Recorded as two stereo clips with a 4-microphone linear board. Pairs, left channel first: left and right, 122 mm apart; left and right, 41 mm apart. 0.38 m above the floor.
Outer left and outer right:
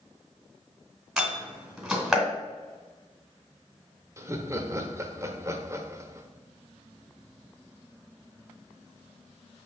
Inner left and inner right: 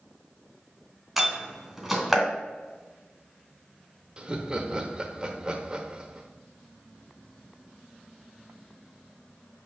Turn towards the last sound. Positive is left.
turn(degrees=-25)  # may be behind; listen again after turning